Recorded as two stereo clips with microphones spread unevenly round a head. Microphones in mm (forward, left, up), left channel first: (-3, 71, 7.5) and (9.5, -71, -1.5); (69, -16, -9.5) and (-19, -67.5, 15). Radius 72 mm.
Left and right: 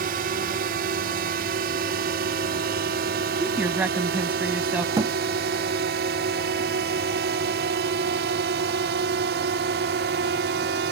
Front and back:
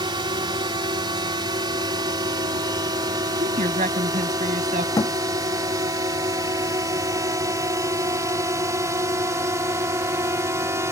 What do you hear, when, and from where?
0.0 s a drone: 110° right; by 10.9 s 90° right
3.4 s a woman speaking: 165° right
5.0 s a thud: 25° right